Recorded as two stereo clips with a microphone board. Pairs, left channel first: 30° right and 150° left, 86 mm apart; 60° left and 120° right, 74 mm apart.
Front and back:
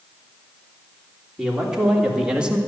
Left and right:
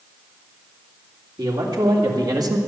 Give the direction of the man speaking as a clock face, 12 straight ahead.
4 o'clock.